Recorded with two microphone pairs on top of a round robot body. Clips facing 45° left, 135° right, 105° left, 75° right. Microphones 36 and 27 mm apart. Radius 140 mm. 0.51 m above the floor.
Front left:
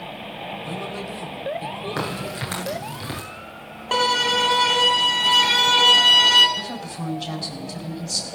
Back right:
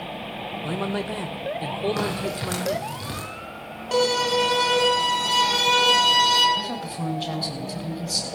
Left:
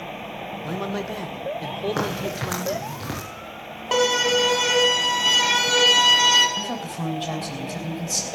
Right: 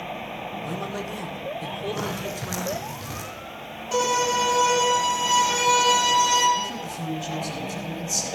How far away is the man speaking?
About 3 m.